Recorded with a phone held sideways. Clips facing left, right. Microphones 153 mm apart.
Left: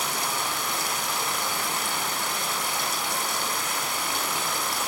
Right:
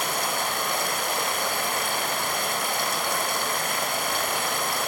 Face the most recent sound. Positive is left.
turn(degrees=-60)  # may be behind; listen again after turning